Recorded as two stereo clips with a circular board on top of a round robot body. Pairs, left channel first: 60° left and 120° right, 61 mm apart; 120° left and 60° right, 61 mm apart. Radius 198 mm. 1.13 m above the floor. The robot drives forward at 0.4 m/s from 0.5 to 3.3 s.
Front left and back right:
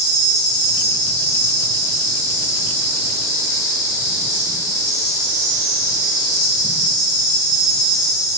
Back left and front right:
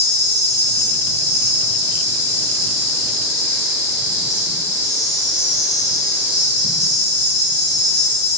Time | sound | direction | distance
0.0 | an insect | 5° left | 1.8 m